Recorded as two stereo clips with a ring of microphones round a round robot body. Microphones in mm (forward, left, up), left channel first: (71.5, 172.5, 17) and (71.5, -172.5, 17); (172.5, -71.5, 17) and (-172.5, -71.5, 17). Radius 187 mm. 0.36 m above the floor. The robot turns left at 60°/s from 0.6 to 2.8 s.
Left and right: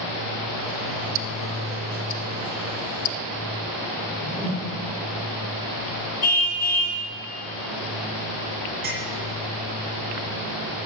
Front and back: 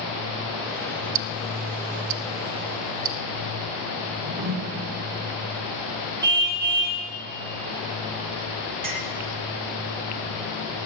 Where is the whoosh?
Straight behind, 1.7 m.